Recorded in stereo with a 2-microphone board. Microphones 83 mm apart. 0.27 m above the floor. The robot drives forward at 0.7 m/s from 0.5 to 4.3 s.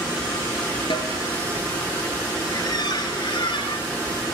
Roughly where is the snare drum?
Left.